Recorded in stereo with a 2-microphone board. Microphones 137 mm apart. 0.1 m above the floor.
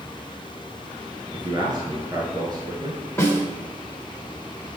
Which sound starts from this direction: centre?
A snare drum, at 3.2 s.